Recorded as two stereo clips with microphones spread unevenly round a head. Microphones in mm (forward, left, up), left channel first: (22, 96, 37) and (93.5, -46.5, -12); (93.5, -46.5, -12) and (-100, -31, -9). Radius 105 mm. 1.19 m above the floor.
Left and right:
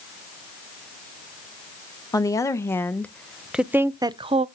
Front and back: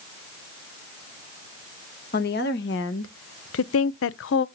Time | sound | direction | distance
2.1 | a woman speaking | 45° left | 1.4 m